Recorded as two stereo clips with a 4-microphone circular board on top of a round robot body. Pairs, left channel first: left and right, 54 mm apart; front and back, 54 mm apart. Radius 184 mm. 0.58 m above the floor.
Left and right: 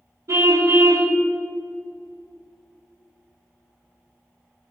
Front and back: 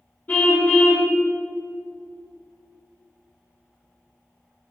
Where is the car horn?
60° right, 3.5 m.